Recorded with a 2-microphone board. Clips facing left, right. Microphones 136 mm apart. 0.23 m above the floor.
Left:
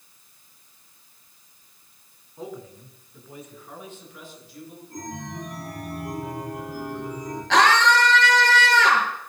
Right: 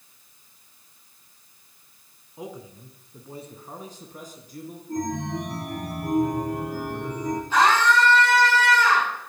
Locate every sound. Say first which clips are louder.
2.4 s a man speaking: left 1 dB; 15° right (ahead or behind), 2.5 m; by 4.8 s 45° right (ahead or behind), 3.5 m
4.9 s a chime: right 9 dB; 65° right (ahead or behind), 9.5 m
7.5 s a scream: left 2 dB; 75° left (ahead or behind), 4 m